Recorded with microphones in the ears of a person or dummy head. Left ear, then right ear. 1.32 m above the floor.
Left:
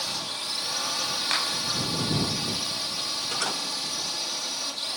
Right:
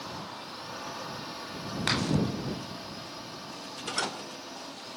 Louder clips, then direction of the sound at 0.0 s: Left 9 dB; 60° left (ahead or behind).